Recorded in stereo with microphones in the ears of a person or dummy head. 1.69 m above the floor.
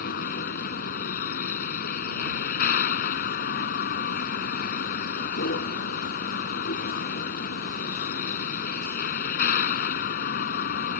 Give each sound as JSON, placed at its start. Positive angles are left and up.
{"t": 0.0, "sound": "a vehicle", "side_deg": 55}